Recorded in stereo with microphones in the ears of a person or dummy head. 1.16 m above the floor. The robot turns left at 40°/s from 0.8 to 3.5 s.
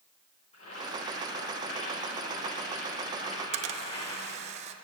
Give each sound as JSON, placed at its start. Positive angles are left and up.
{"t": 0.5, "sound": "boiling", "azimuth_deg": 145, "distance_m": 5.0}
{"t": 3.3, "sound": "a camera shutter", "side_deg": -35, "distance_m": 0.8}